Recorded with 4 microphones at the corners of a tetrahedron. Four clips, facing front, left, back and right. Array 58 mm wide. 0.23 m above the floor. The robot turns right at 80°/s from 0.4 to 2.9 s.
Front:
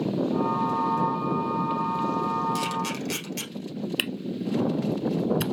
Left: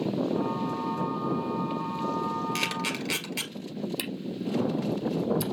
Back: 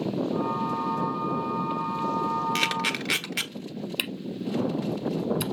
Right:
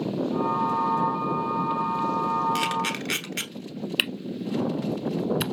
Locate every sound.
2.5 s a camera shutter: straight behind, 1.2 m; by 3.5 s 155° right, 1.2 m
4.0 s a camera shutter: 75° right, 0.6 m